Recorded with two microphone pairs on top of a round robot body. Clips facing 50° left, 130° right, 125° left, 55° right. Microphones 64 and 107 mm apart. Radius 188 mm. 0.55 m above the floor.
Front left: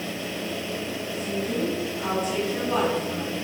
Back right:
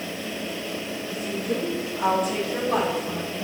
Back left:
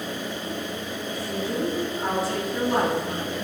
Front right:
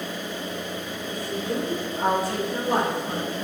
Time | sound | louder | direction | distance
1.1 | a woman speaking | back right 1 dB, front right 1 dB | 100° right | 5 m